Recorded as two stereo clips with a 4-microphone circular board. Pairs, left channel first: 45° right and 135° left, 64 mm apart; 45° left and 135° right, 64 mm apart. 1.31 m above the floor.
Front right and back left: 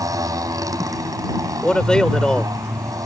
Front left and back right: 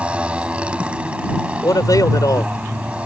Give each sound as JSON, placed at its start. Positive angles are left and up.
{"t": 0.0, "sound": "a motorcycle", "azimuth_deg": 155}
{"t": 1.6, "sound": "a man speaking", "azimuth_deg": 30}